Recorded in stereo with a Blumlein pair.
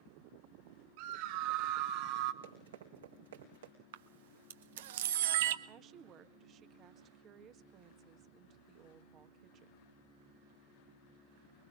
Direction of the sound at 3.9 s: 55° right.